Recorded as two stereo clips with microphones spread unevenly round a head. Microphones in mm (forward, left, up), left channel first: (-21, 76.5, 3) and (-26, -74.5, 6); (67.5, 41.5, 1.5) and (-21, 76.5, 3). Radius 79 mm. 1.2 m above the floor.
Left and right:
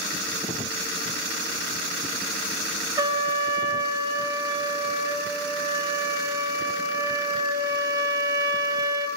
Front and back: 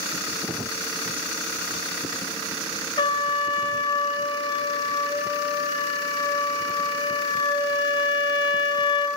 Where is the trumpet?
35° right, 1.1 m.